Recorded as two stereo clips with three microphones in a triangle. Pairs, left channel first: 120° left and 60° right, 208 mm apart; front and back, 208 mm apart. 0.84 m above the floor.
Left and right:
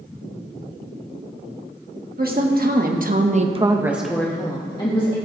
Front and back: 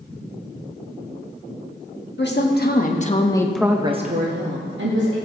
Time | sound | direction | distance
2.2 | a woman speaking | 20° right | 1.6 m